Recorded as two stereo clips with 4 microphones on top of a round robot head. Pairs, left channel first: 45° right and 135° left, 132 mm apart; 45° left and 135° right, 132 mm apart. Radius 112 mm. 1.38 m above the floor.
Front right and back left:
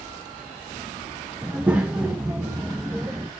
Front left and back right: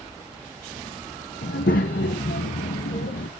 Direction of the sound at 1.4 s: 60° left.